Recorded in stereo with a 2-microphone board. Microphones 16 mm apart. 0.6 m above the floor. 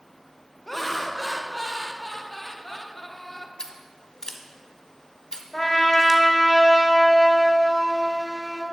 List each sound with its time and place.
0.7 s laughter: 10° left (ahead or behind), 0.7 m
3.6 s scissors: 50° left (ahead or behind), 1.1 m
5.5 s a trumpet: 15° left (ahead or behind), 1.8 m